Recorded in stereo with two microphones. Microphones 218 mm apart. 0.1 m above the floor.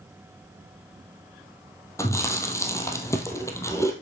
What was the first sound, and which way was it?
Chewing, 15° left (ahead or behind).